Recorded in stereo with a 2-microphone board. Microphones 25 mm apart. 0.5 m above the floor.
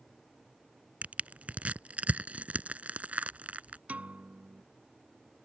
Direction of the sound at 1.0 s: 70° right (ahead or behind).